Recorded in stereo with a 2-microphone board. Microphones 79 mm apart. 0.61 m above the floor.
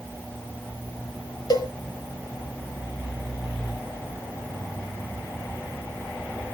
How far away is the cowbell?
About 1.6 m.